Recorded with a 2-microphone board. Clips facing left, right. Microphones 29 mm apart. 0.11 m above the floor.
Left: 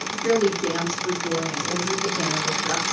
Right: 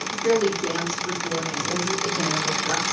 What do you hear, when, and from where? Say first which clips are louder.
0.1 s a woman speaking: even; 15° left (ahead or behind), 1.6 m; by 2.8 s 50° left (ahead or behind), 2.5 m